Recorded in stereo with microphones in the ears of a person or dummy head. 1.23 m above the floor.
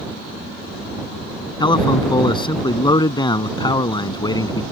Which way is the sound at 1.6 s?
25° left (ahead or behind).